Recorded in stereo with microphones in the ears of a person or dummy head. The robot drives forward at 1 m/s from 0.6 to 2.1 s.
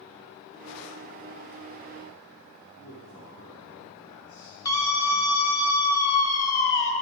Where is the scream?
30° left (ahead or behind), 1.6 m.